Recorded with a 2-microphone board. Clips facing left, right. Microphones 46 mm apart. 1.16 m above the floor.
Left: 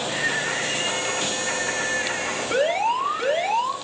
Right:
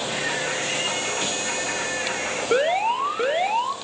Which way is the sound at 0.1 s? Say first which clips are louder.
Left 2 dB; 20° right (ahead or behind).